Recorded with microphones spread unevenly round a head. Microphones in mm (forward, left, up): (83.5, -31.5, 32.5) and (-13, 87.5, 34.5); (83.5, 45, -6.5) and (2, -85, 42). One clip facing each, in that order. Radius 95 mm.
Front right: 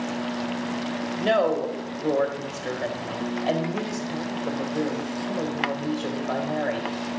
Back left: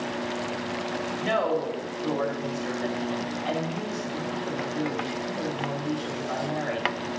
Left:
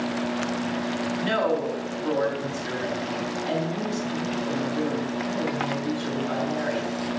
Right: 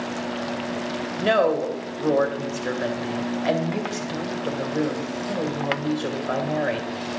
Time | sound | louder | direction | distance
1.2 | a woman speaking | front right 4 dB, right 6 dB | 100° right | 2 m